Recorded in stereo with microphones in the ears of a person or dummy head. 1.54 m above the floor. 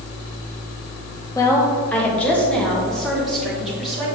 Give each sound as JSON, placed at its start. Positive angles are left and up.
{"t": 1.4, "sound": "a woman speaking", "side_deg": 20, "distance_m": 1.1}